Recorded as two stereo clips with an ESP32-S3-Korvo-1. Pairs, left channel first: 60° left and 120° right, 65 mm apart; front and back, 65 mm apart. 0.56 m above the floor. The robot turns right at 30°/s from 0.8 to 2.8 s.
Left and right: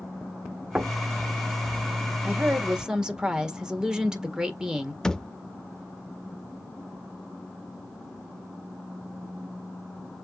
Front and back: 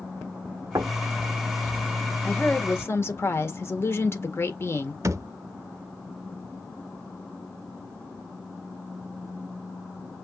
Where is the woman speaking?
60° right, 1.7 m; by 4.9 s 45° right, 1.7 m.